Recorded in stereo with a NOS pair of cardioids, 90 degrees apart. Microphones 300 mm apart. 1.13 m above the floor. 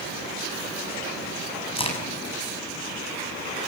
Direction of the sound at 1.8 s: 20° left.